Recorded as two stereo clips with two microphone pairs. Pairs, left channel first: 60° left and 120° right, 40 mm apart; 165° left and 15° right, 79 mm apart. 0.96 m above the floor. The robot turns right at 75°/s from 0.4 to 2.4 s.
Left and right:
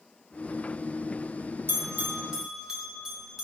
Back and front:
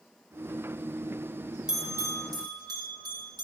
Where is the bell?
100° right, 2.5 m; by 3.4 s 45° right, 2.5 m.